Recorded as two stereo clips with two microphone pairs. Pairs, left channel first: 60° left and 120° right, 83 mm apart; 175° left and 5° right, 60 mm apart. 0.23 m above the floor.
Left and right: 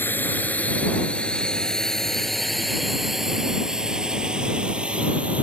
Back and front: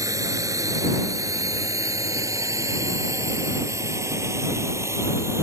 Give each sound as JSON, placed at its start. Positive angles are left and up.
{"t": 0.0, "sound": "a drone", "azimuth_deg": 0}